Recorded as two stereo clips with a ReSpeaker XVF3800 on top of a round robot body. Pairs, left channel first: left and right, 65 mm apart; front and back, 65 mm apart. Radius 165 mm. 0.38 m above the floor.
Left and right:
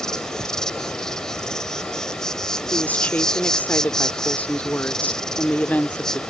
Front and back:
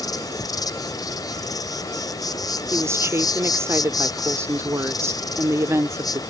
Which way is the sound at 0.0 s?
10° left.